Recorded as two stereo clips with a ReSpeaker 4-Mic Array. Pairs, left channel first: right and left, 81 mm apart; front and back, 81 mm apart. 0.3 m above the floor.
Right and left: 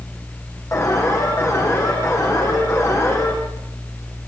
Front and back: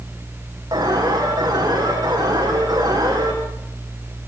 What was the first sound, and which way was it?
An alarm, 140° right.